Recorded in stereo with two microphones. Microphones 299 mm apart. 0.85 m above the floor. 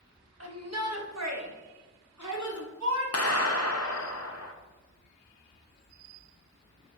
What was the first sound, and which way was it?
A shout, 50° right (ahead or behind).